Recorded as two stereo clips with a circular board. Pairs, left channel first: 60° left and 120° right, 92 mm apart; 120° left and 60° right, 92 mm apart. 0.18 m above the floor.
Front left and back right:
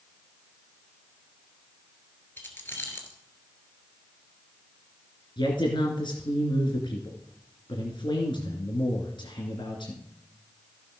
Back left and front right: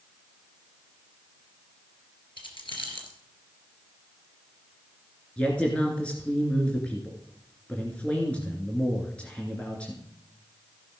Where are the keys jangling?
125° left, 2.5 m.